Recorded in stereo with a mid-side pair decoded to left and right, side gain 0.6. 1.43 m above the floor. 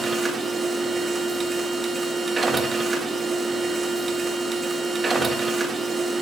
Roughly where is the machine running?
Ahead.